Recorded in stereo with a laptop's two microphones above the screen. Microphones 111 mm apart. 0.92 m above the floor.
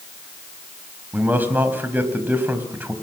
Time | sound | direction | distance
1.1 | a man speaking | 15° right (ahead or behind) | 4.5 m